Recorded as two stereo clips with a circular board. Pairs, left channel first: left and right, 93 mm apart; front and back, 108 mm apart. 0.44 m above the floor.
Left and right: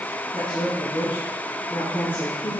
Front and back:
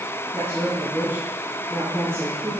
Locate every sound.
0.3 s a woman speaking: 110° left, 3.5 m